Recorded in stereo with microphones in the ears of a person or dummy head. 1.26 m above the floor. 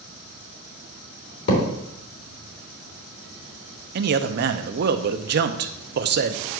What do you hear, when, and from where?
1.5 s a thud: 65° left (ahead or behind), 3 m
4.0 s a man speaking: 50° right (ahead or behind), 0.6 m